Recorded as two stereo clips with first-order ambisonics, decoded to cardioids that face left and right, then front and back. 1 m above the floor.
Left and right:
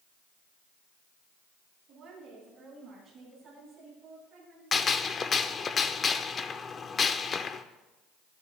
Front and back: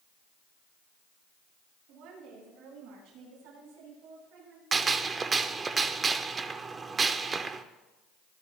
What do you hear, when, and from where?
1.9 s a woman speaking: 155° right, 9 m; by 4.6 s 175° right, 11 m
4.7 s a gunshot: 130° left, 0.6 m